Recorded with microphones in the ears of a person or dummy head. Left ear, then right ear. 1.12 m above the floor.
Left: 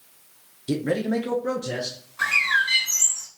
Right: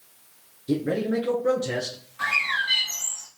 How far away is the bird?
About 3 m.